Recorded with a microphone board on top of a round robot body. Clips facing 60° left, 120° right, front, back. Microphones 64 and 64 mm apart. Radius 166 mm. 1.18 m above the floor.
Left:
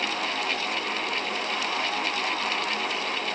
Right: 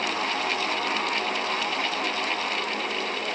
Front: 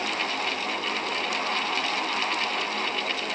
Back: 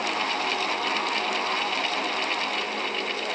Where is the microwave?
No microwave in this recording.